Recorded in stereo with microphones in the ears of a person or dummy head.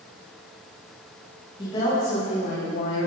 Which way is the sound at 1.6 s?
25° left (ahead or behind).